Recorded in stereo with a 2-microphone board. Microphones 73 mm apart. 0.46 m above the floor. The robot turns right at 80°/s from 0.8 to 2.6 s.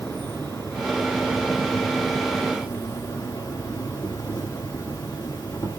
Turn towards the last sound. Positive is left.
turn(degrees=90)